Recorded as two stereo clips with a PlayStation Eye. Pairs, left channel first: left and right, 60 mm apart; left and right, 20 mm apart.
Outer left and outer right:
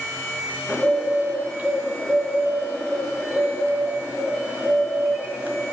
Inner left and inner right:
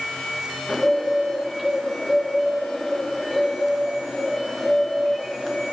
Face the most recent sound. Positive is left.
turn(degrees=-25)  # may be behind; listen again after turning